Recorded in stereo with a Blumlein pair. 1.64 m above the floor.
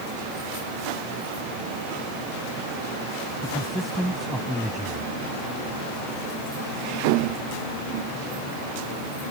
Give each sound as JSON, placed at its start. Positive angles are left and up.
{"t": 3.4, "sound": "a man speaking", "azimuth_deg": 0}